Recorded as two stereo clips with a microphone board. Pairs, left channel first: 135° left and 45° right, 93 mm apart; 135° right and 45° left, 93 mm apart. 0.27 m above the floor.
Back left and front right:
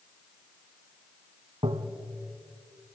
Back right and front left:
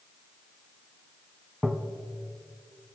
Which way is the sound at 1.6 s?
45° right.